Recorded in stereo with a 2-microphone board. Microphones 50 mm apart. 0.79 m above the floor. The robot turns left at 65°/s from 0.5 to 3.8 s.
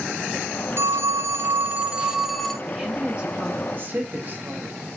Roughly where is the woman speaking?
Ahead.